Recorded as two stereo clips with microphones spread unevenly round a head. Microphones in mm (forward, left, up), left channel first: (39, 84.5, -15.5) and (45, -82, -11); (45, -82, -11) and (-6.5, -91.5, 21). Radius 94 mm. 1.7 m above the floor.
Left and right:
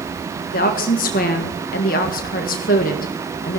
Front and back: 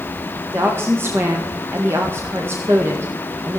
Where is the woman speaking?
140° left, 1.5 m.